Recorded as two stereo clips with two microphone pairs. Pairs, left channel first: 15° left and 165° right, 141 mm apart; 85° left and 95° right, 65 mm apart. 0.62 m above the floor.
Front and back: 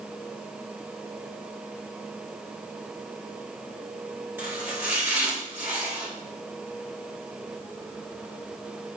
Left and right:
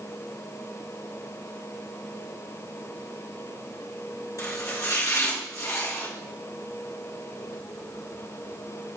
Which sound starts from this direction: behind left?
Chopping, at 4.4 s.